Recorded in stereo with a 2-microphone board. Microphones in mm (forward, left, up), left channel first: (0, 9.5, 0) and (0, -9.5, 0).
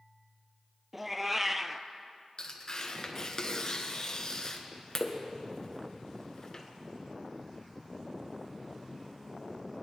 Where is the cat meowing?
15° right (ahead or behind), 0.5 m.